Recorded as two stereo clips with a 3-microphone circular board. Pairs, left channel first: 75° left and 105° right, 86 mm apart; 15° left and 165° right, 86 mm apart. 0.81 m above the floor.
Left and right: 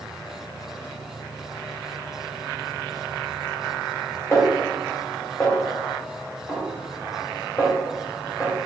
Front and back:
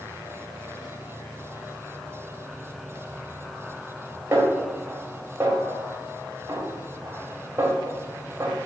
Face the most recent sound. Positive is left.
turn(degrees=135)